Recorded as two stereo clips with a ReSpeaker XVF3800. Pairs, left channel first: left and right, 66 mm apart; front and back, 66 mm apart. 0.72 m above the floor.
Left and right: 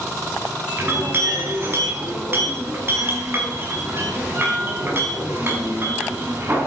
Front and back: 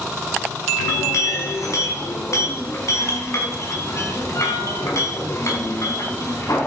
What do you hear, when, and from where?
0.8 s a clink: 40° right, 3.5 m